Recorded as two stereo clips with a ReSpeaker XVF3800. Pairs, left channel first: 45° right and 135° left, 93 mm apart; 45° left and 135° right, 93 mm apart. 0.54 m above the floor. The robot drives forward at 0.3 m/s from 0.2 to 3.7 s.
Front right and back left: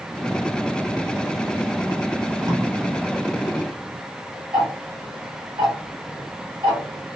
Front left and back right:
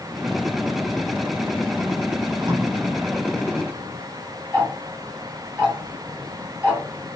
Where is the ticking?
155° left, 2 m.